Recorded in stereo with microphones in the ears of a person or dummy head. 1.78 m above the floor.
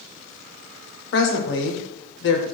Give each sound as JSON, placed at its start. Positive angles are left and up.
{"t": 1.1, "sound": "a woman speaking", "side_deg": 60, "distance_m": 0.6}